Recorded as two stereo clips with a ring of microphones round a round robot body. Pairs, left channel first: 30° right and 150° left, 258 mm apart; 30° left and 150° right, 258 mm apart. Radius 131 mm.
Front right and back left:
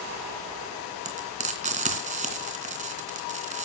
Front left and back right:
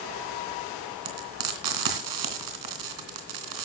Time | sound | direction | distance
1.1 | frying | 145° right | 2.5 m